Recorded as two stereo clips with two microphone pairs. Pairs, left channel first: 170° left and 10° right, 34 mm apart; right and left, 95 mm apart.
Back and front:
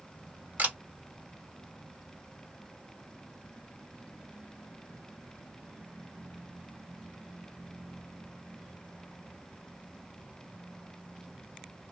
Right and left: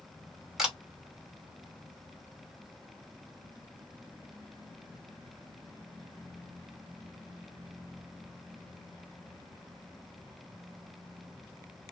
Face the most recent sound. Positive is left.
turn(degrees=5)